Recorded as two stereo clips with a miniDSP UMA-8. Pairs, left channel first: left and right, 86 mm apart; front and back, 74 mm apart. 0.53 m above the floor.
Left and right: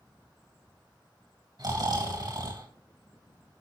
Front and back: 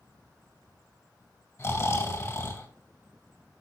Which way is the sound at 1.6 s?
55° right.